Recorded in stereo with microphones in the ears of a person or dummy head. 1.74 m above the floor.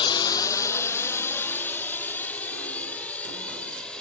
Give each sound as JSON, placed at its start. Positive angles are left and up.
{"t": 0.0, "sound": "a drone", "side_deg": 25}